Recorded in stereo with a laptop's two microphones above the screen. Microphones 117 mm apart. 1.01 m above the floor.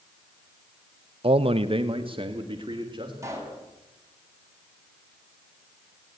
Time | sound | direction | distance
1.2 | a man speaking | 55° right (ahead or behind) | 0.6 m
3.2 | a pop | 25° right (ahead or behind) | 7 m